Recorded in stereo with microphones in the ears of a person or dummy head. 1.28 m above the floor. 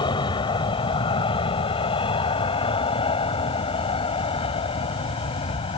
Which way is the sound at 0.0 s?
30° left (ahead or behind).